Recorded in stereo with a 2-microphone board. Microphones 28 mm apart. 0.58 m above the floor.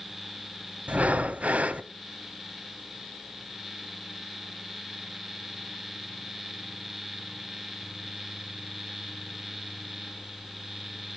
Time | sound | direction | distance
0.9 | breathing | 60° right (ahead or behind) | 0.7 m